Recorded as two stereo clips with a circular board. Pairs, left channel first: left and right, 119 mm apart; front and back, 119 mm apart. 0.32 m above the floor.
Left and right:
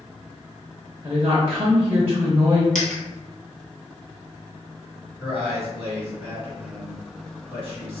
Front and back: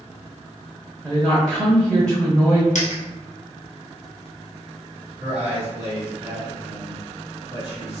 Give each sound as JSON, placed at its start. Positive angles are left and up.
{"t": 1.0, "sound": "a woman speaking", "azimuth_deg": -85, "distance_m": 0.9}
{"t": 2.8, "sound": "a dropped coin", "azimuth_deg": 5, "distance_m": 1.5}
{"t": 5.2, "sound": "a man speaking", "azimuth_deg": 100, "distance_m": 2.0}